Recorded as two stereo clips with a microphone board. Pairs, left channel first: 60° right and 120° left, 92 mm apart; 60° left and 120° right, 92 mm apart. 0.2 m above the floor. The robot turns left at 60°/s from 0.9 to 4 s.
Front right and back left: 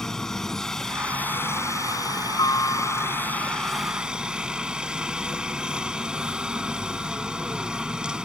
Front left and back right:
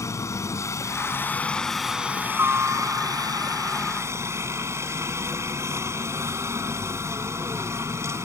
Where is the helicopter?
20° left; by 8.2 s 165° right.